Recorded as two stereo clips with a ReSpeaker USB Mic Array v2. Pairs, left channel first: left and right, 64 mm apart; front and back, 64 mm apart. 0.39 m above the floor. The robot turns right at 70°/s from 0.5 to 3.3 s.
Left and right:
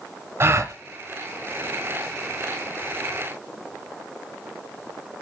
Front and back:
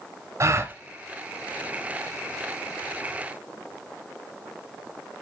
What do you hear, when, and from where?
0.4 s a gasp: 140° right, 0.6 m; by 0.7 s 120° right, 0.6 m